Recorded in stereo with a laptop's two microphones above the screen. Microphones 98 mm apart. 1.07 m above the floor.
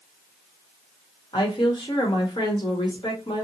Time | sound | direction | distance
1.3 | a woman speaking | 50° left (ahead or behind) | 1.0 m